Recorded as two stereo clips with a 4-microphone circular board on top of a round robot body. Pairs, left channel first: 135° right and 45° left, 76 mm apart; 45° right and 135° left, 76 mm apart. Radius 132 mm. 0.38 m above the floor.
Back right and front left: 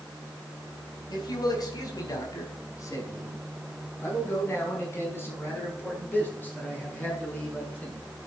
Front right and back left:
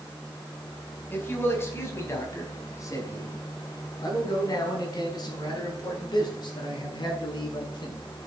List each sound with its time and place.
1.1 s a man speaking: 105° right, 4.5 m; by 8.0 s 65° right, 7 m